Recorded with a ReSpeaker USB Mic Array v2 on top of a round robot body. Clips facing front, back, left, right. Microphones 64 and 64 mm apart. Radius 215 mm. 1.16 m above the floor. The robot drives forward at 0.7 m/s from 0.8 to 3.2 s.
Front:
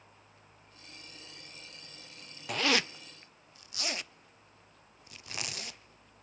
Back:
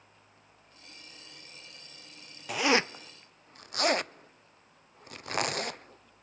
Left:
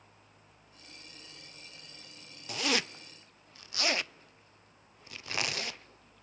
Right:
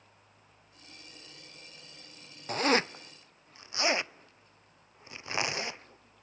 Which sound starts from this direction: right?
A zipper, at 2.5 s.